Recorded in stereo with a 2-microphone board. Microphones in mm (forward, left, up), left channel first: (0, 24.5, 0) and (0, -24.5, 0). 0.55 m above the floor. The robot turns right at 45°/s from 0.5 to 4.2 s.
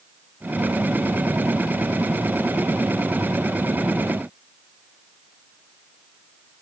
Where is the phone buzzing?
I don't hear a phone buzzing.